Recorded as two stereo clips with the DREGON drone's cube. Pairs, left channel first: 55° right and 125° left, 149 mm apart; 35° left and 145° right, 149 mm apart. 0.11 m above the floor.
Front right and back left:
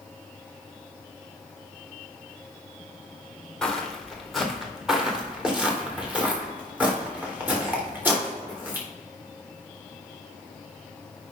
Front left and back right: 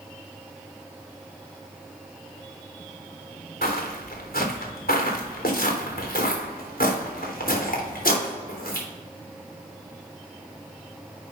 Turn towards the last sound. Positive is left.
turn(degrees=45)